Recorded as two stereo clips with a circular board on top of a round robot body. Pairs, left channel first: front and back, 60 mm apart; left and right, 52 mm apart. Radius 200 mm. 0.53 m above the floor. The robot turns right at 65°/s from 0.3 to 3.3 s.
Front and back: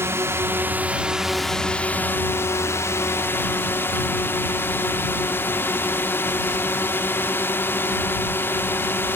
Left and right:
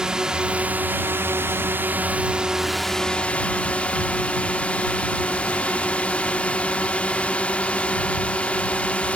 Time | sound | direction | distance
0.0 | a drone | 160° right | ?